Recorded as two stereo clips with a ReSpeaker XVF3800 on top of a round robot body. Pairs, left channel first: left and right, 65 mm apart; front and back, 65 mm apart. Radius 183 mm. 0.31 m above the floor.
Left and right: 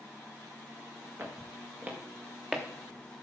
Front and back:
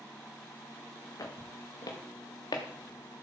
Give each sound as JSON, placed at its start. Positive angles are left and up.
{"t": 1.2, "sound": "footsteps", "azimuth_deg": -35, "distance_m": 3.0}